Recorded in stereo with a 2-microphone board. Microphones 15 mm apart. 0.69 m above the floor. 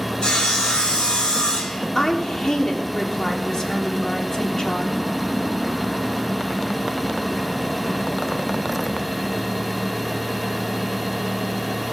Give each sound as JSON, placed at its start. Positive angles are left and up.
{"t": 0.2, "sound": "sawing", "side_deg": 80, "distance_m": 4.5}
{"t": 1.9, "sound": "a woman speaking", "side_deg": 35, "distance_m": 1.9}